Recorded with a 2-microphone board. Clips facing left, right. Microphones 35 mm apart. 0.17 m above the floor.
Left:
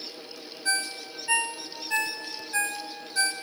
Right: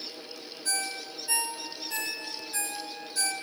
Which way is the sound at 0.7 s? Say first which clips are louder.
Left 5 dB; 45° left (ahead or behind).